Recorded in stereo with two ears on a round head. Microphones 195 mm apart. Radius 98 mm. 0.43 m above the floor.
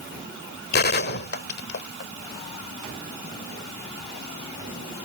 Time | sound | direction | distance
0.7 | a gunshot | 50° left (ahead or behind) | ?